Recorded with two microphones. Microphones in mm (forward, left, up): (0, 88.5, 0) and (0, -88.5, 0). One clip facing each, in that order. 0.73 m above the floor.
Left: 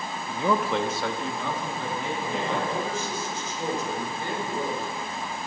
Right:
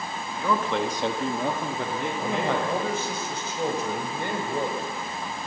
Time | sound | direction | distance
0.3 | a man speaking | 30° left (ahead or behind) | 1.3 m
2.2 | a man speaking | 65° right (ahead or behind) | 3 m